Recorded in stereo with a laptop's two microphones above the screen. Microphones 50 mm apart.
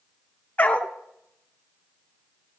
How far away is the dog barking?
About 0.6 m.